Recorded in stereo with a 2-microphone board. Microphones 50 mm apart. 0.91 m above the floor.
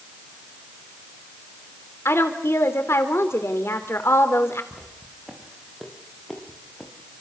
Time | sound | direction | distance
2.0 | a woman speaking | 60° left (ahead or behind) | 3 m
4.7 | footsteps | 10° right (ahead or behind) | 7 m